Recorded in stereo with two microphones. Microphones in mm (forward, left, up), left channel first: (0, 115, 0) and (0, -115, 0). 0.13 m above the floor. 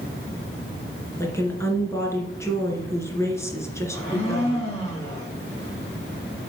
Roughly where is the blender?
Centre.